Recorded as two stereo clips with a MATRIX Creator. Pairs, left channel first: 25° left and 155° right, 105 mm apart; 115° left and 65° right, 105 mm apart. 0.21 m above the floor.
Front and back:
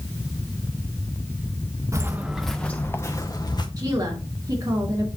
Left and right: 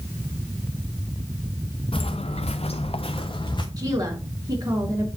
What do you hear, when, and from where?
1.9 s footsteps: 140° left, 0.9 m; by 3.7 s 70° left, 1.4 m
3.8 s a woman speaking: 110° right, 2.5 m